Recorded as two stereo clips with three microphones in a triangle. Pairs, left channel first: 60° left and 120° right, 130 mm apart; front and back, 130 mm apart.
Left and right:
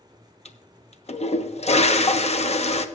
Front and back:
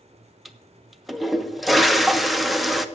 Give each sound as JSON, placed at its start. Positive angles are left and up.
{"t": 0.5, "sound": "a toilet flushing", "azimuth_deg": 90, "distance_m": 0.7}